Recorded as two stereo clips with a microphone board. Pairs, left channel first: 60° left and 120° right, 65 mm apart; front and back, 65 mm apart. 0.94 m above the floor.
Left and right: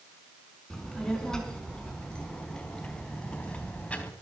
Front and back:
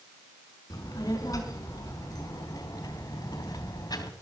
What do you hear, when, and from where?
0.7 s a child speaking: 20° right, 5 m; by 4.1 s 10° right, 3 m